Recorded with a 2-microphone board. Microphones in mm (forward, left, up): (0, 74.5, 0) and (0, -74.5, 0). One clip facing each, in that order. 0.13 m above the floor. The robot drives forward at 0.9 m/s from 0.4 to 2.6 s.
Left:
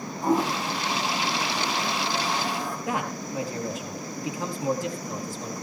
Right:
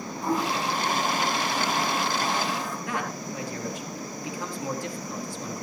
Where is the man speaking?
25° left (ahead or behind), 3 m.